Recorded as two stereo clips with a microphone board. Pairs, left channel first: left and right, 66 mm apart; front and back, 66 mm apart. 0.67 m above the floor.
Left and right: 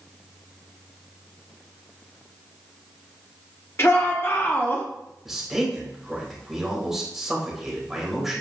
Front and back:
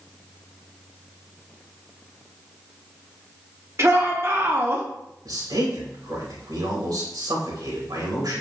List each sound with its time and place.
3.8 s a shout: 135° left, 2.0 m; by 4.9 s 140° left, 1.2 m
5.2 s a man speaking: 175° right, 3 m